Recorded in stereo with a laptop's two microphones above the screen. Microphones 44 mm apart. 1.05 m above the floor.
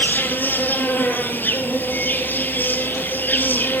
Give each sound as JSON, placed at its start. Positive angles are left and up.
{"t": 0.0, "sound": "an insect", "side_deg": 45, "distance_m": 1.7}